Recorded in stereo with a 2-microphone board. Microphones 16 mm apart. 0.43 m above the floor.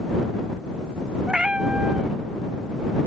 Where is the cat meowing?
70° right (ahead or behind).